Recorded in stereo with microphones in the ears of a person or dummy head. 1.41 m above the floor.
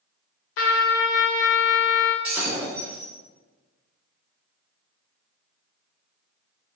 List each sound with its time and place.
0.6 s a trumpet: 70° left (ahead or behind), 0.5 m
2.2 s breaking glass: 10° right (ahead or behind), 1.2 m